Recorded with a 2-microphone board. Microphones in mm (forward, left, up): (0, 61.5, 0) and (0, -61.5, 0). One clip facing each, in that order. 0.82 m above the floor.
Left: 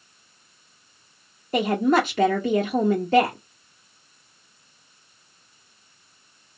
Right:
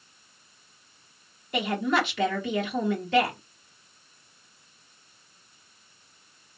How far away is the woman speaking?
About 0.7 m.